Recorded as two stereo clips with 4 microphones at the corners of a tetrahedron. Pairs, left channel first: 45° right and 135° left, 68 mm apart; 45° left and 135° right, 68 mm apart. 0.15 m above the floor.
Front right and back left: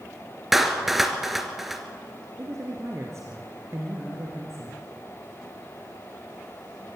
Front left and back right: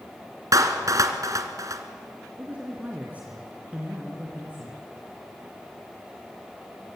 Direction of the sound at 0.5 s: 140° right.